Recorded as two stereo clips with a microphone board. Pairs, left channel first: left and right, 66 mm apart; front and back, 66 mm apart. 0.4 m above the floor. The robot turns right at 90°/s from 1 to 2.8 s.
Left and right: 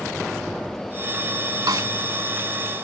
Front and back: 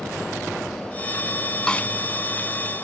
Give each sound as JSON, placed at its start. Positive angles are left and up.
{"t": 1.7, "sound": "a snare drum", "azimuth_deg": -80}